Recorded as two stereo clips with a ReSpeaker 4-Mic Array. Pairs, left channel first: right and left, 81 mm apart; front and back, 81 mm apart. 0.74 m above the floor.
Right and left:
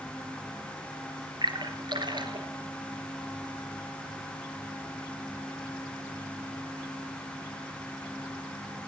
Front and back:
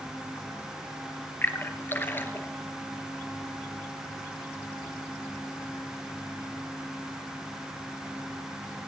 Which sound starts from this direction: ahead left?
A splash, at 1.4 s.